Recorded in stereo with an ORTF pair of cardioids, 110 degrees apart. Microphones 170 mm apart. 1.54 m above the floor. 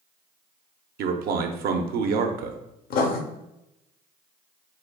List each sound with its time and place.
1.0 s a man speaking: 65° right, 0.7 m
2.9 s writing: 60° left, 0.7 m